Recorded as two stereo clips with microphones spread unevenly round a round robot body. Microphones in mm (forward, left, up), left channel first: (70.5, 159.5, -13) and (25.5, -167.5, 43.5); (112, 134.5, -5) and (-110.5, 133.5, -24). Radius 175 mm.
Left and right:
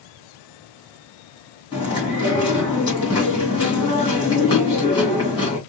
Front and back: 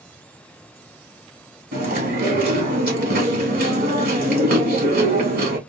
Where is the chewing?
150° left, 1.5 m.